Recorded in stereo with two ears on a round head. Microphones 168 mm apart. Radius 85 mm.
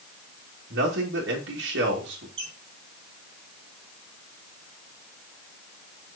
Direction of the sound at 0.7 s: 65° right (ahead or behind).